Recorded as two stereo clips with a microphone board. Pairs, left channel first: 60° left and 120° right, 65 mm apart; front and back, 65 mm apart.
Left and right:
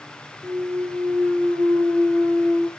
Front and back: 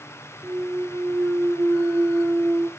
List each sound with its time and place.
0.4 s a clunk: 140° right, 1.5 m